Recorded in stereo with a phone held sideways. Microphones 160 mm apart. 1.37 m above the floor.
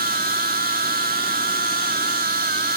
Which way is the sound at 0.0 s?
70° right (ahead or behind).